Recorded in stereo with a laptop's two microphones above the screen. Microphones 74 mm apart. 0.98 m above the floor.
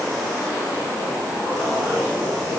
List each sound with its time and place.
Only background noise.